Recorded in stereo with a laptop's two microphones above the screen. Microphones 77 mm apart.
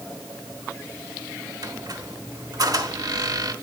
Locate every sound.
1.6 s a squeak: 50° right (ahead or behind), 0.9 m